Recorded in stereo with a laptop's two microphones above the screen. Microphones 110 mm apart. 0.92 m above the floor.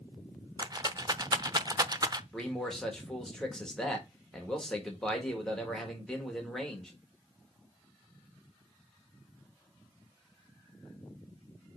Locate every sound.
0.6 s a rattle: 35° right (ahead or behind), 0.7 m
2.3 s a man speaking: 5° left (ahead or behind), 1.7 m